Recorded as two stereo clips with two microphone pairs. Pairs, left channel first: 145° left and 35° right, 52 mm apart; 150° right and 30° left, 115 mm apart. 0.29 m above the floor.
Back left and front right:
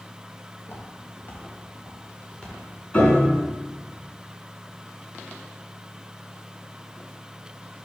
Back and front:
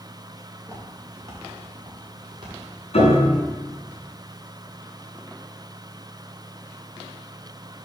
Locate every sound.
0.6 s footsteps: 105° left, 3 m; by 2.5 s 70° left, 3 m
2.9 s a piano: 155° right, 2.5 m